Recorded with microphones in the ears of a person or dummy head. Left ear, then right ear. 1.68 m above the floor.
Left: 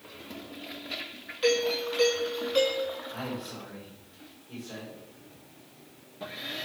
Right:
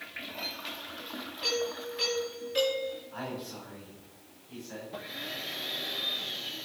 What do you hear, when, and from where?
1.4 s a doorbell: 30° left (ahead or behind), 7 m
3.1 s a man speaking: 10° left (ahead or behind), 6 m